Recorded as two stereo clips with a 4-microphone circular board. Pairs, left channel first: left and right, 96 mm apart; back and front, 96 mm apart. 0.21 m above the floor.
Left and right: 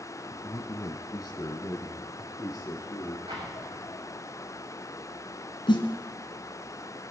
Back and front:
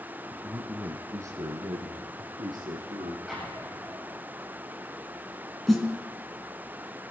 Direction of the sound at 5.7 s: 90° left.